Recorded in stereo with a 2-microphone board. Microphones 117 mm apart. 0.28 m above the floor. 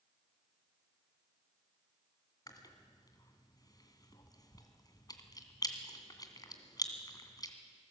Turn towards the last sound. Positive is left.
turn(degrees=35)  # may be behind; listen again after turning